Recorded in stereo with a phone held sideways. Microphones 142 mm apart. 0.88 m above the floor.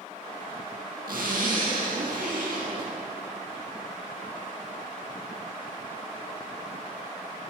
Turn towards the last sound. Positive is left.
turn(degrees=-80)